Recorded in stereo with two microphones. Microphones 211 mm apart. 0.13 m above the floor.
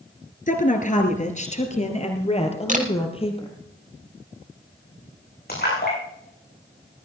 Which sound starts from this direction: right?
A camera shutter, at 2.7 s.